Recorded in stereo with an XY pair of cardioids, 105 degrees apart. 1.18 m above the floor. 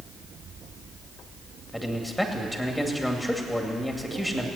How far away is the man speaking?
About 2.5 m.